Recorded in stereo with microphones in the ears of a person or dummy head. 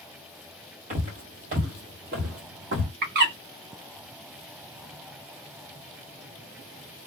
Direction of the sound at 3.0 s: 50° right (ahead or behind).